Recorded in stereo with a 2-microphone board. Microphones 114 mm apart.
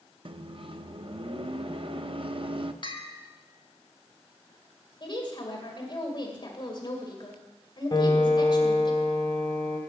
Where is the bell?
45° left (ahead or behind), 0.9 m.